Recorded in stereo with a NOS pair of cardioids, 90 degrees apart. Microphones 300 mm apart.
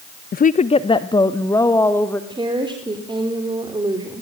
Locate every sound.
0.3 s a woman speaking: 30° left, 0.6 m; by 2.2 s 5° left, 2 m
2.3 s a woman speaking: 15° right, 4 m